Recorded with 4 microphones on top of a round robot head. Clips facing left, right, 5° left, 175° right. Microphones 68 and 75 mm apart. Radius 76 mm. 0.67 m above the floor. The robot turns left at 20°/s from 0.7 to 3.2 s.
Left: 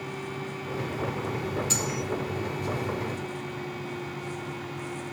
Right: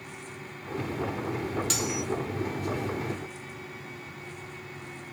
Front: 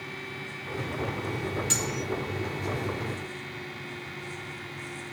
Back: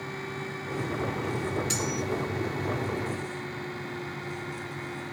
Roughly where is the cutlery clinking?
Right.